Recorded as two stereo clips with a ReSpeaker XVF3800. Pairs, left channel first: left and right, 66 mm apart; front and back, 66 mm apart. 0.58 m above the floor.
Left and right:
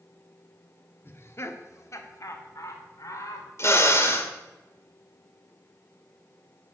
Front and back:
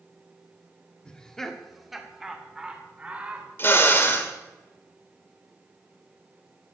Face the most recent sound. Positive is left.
turn(degrees=45)